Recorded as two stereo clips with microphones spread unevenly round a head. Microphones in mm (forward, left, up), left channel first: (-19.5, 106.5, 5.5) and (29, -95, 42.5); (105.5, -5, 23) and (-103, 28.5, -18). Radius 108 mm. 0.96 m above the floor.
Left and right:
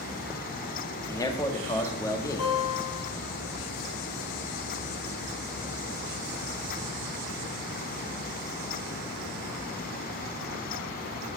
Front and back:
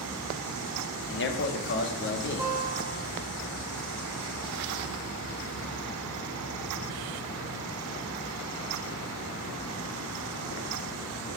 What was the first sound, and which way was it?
A man speaking, 30° left.